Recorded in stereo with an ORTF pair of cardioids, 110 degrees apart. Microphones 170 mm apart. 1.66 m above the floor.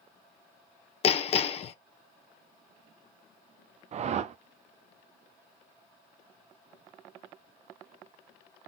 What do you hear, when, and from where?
1.0 s hammering: 40° left, 0.8 m
3.9 s a whoosh: 40° right, 0.5 m